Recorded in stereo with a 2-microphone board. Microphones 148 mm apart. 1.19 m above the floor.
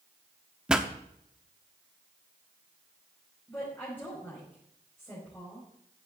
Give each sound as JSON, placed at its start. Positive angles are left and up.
{"t": 0.7, "sound": "a pop", "side_deg": -5, "distance_m": 0.8}
{"t": 3.5, "sound": "a woman speaking", "side_deg": 15, "distance_m": 5.5}